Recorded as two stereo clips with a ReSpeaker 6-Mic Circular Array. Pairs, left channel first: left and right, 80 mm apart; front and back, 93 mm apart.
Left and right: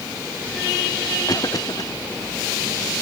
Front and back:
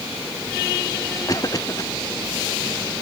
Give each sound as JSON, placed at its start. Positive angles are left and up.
{"t": 1.3, "sound": "a cough", "azimuth_deg": 50}